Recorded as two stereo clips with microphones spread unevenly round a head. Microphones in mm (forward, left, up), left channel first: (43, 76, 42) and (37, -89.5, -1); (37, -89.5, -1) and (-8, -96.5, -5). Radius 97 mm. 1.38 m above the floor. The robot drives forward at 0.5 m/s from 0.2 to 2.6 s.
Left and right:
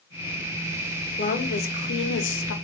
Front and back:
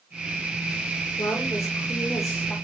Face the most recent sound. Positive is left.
turn(degrees=95)